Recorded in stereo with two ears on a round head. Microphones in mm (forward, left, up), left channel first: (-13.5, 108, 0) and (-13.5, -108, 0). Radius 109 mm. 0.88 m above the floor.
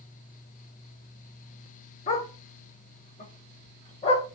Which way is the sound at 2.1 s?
30° left (ahead or behind).